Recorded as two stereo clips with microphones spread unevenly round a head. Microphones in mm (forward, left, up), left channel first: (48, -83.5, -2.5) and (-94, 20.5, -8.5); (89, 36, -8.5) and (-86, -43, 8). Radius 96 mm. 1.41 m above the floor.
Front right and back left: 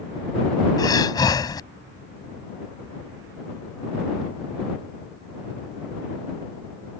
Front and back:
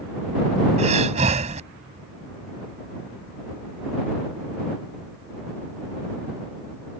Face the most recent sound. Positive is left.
turn(degrees=-105)